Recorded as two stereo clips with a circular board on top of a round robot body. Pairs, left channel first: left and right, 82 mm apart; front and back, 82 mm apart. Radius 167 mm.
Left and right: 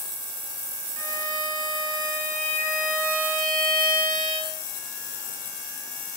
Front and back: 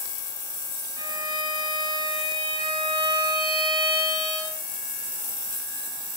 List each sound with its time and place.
1.0 s a violin: 165° left, 7.5 m